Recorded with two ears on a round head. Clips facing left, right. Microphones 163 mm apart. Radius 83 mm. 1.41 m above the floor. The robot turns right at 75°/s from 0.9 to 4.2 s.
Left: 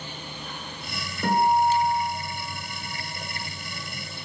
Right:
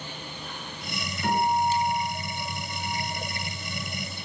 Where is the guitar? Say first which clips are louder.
Left 4 dB; 135° left, 1.6 m; by 3.4 s 60° right, 1.6 m.